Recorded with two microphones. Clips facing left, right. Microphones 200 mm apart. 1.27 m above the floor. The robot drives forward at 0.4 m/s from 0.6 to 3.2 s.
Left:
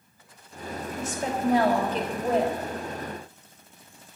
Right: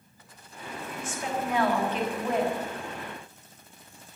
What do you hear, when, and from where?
1.0 s a woman speaking: 45° left (ahead or behind), 3.5 m; by 2.6 s 35° left (ahead or behind), 4 m